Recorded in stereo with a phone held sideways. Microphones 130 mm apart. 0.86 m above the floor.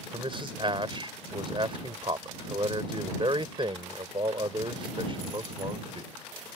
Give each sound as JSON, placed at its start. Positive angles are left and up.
{"t": 0.1, "sound": "a man speaking", "side_deg": -40}